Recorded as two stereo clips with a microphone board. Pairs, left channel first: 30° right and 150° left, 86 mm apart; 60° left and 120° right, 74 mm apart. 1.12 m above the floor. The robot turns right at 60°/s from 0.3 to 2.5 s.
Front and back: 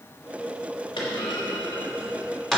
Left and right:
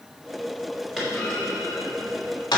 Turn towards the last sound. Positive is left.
turn(degrees=55)